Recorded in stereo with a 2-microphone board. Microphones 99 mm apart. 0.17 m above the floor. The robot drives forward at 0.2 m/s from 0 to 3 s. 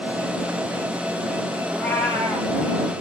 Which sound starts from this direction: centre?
A cat meowing, at 1.7 s.